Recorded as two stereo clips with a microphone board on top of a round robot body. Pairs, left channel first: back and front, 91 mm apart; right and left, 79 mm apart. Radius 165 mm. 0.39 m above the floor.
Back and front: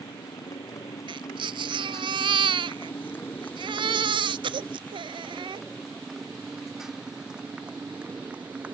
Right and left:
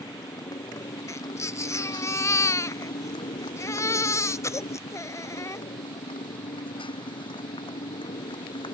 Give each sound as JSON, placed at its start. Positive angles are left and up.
{"t": 0.0, "sound": "a motorcycle", "azimuth_deg": -130}
{"t": 1.1, "sound": "a baby crying", "azimuth_deg": -35}